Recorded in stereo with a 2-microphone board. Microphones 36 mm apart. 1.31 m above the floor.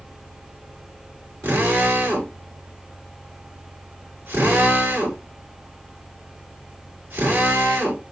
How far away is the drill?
About 5.5 m.